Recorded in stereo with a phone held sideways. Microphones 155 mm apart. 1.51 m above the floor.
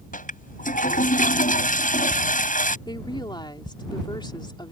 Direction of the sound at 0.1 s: 60° left (ahead or behind).